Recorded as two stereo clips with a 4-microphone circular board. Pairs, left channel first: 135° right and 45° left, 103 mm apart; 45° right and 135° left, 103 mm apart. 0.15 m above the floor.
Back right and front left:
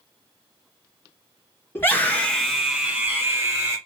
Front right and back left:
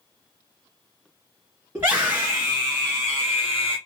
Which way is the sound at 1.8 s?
175° right.